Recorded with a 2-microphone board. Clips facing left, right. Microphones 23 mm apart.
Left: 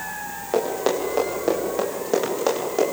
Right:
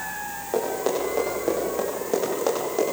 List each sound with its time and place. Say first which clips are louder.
0.5 s running footsteps: left 3 dB; 30° left (ahead or behind), 9 m; by 2.8 s 20° left (ahead or behind), 10 m